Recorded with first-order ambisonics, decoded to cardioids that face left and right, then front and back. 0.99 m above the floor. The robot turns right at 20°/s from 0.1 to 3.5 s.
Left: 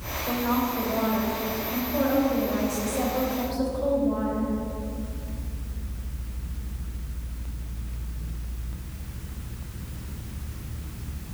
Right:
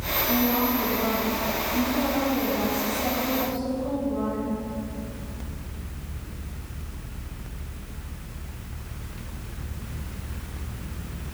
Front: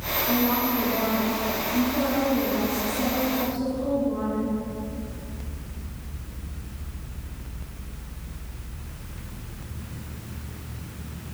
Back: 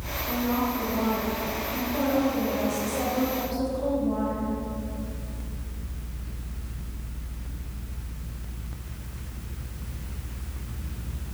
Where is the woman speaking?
60° left, 4.5 m; by 4.5 s 125° left, 4.5 m.